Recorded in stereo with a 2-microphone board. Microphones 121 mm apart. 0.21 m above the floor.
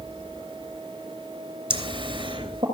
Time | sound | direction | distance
1.7 | laughter | 50° right (ahead or behind) | 3 m